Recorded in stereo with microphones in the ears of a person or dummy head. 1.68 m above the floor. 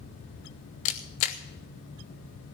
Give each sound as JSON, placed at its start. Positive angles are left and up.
{"t": 0.8, "sound": "a camera shutter", "side_deg": 30, "distance_m": 0.6}